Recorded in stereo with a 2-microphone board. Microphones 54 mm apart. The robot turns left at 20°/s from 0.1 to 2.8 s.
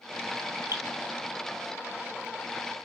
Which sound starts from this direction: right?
Dripping, at 0.7 s.